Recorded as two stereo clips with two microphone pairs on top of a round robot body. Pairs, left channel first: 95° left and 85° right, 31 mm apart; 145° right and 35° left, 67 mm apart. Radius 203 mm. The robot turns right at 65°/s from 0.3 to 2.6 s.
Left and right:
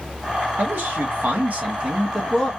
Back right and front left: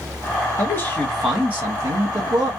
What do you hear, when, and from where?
0.6 s a man speaking: 95° right, 1.6 m; by 2.5 s 30° left, 1.6 m